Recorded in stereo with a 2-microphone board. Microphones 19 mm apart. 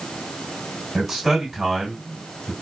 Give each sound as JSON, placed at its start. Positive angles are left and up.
{"t": 0.9, "sound": "a man speaking", "side_deg": 0, "distance_m": 1.6}